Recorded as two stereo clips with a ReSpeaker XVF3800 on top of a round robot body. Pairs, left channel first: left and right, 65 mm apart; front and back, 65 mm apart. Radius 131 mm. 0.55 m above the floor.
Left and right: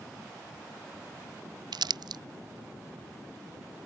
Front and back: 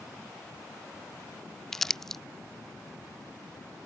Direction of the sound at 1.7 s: 85° right.